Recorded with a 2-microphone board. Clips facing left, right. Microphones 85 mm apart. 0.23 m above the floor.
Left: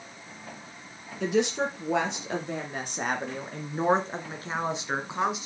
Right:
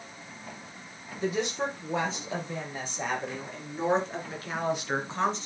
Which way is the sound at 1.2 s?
75° left (ahead or behind).